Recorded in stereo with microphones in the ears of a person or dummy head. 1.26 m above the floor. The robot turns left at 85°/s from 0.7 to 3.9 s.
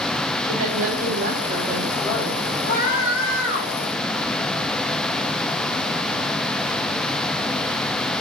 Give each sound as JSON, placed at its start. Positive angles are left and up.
{"t": 0.4, "sound": "a woman speaking", "azimuth_deg": -75, "distance_m": 5.5}
{"t": 2.7, "sound": "a scream", "azimuth_deg": 145, "distance_m": 8.5}